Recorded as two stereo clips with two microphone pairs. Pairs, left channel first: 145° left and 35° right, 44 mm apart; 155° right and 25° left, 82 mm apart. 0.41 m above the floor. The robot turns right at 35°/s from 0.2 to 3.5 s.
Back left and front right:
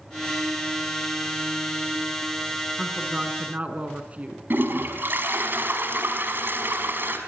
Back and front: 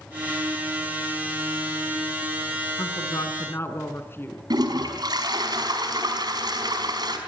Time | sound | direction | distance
2.8 | a woman speaking | 120° right | 4 m
4.5 | a toilet flushing | 5° right | 4.5 m